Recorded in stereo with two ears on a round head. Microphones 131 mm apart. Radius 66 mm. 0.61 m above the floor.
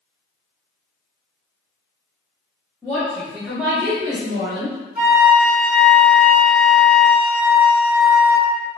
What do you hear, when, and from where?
2.8 s a woman speaking: 15° left (ahead or behind), 1.0 m; by 4.8 s 50° right (ahead or behind), 1.2 m
5.0 s a flute: 10° right (ahead or behind), 1.1 m